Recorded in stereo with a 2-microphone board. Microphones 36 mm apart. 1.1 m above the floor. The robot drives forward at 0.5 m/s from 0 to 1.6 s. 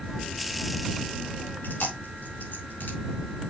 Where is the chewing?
75° left (ahead or behind), 4 m.